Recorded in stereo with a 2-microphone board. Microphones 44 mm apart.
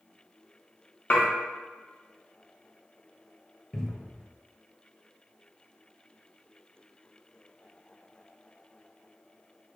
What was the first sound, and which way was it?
Dishes clattering, 40° left (ahead or behind).